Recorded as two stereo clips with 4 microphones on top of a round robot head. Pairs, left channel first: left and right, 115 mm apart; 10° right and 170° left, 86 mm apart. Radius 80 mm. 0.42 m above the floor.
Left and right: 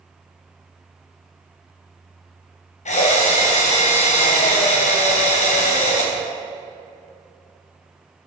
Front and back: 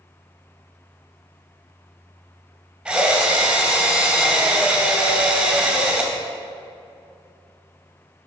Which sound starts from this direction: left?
A drill, at 2.9 s.